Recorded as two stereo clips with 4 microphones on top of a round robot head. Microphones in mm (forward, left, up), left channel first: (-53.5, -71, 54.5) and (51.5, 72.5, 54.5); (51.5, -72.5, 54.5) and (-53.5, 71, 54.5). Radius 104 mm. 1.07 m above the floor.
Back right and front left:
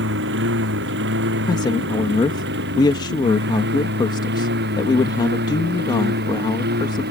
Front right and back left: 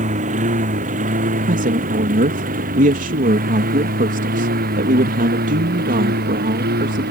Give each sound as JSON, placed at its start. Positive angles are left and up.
{"t": 0.0, "sound": "a lawn mower", "azimuth_deg": 75}
{"t": 1.5, "sound": "a man speaking", "azimuth_deg": 170}